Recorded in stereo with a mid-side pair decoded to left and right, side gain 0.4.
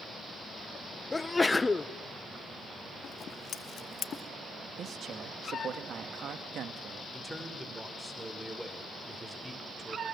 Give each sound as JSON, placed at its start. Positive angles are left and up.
{"t": 1.1, "sound": "a sneeze", "azimuth_deg": 25, "distance_m": 1.1}
{"t": 3.0, "sound": "scissors", "azimuth_deg": 60, "distance_m": 1.4}
{"t": 4.8, "sound": "a man speaking", "azimuth_deg": -60, "distance_m": 2.5}
{"t": 7.1, "sound": "a man speaking", "azimuth_deg": -10, "distance_m": 5.0}